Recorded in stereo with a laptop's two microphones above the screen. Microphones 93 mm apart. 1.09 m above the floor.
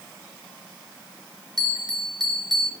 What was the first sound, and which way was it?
A bell, 50° right (ahead or behind).